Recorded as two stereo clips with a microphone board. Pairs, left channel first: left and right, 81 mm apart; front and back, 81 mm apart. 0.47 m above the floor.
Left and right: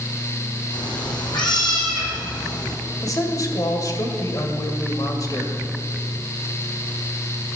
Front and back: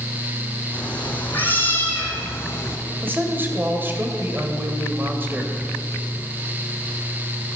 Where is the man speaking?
120° left, 2 m.